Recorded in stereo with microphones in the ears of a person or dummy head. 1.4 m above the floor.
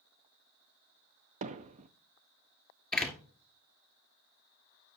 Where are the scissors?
I don't hear scissors.